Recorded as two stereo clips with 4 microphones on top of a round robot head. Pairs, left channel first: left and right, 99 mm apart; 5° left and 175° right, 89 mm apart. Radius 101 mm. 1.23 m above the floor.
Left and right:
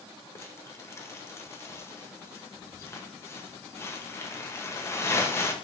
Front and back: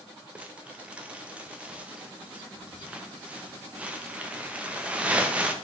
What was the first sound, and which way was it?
Crumpling, 125° left.